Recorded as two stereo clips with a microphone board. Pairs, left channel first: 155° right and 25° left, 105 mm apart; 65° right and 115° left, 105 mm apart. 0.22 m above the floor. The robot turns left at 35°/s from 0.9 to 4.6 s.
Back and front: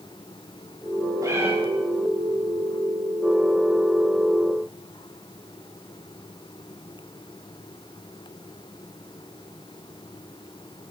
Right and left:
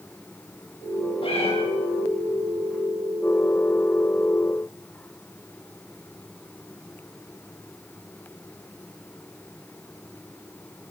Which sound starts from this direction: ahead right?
A cat meowing, at 1.2 s.